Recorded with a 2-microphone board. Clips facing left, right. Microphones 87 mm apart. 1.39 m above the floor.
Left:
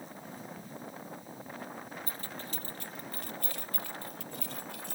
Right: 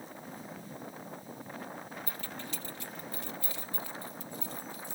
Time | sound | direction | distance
2.1 | keys jangling | 35° left (ahead or behind) | ?